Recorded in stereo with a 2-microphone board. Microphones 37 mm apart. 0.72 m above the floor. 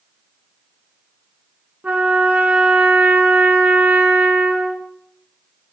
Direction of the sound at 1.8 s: 40° right (ahead or behind).